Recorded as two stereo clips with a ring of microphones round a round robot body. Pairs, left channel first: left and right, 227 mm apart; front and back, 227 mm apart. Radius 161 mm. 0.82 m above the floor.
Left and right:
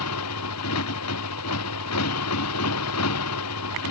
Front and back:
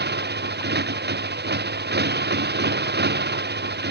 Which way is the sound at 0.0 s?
135° left.